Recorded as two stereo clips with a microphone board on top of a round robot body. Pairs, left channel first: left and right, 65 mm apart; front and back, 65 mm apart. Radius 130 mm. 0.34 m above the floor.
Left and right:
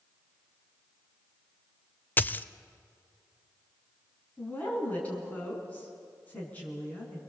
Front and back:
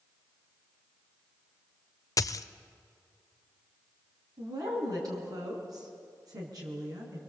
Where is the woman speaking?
155° left, 5 m.